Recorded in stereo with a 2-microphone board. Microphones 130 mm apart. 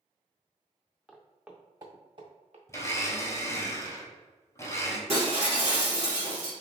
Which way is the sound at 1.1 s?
10° left (ahead or behind).